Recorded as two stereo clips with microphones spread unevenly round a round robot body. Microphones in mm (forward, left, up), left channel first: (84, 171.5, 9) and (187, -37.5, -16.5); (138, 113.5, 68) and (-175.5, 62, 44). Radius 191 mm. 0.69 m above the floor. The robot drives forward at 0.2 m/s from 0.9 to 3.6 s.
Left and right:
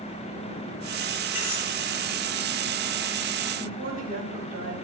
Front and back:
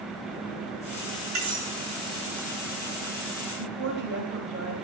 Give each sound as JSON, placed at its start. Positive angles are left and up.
{"t": 1.4, "sound": "cutlery clinking", "azimuth_deg": 155, "distance_m": 6.5}
{"t": 3.6, "sound": "a woman speaking", "azimuth_deg": -110, "distance_m": 3.5}